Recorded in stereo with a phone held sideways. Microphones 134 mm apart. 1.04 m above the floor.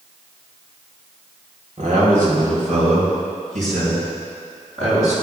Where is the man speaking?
80° right, 3.5 m; by 5.1 s 65° right (ahead or behind), 6 m.